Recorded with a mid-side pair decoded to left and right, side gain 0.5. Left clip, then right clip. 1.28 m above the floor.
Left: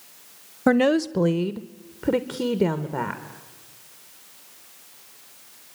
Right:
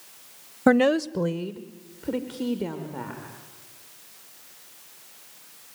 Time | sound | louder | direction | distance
0.7 | a woman speaking | even | 10° right | 0.6 m